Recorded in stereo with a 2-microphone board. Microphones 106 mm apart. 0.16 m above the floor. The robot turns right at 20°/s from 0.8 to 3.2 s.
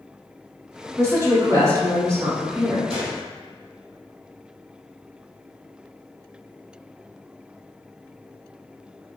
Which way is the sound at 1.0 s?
30° right (ahead or behind).